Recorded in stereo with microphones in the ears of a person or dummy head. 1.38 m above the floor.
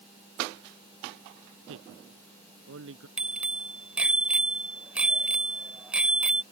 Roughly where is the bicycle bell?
Centre.